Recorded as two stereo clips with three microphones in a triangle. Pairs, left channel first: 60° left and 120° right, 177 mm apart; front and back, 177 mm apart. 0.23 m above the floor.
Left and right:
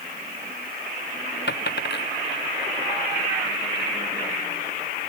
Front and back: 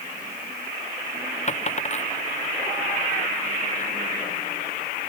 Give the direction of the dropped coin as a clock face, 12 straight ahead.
10 o'clock.